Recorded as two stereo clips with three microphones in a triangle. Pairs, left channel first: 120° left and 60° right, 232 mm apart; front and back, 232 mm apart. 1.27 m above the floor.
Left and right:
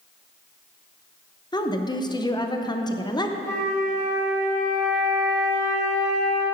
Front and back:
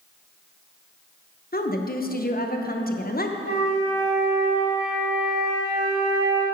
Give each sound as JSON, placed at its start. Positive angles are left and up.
{"t": 1.5, "sound": "a woman speaking", "azimuth_deg": 45, "distance_m": 0.7}
{"t": 3.4, "sound": "a flute", "azimuth_deg": -165, "distance_m": 4.0}